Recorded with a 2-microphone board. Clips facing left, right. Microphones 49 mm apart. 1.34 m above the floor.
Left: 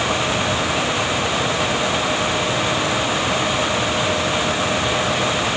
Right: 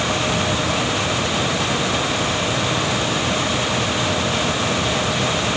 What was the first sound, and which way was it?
Only background noise.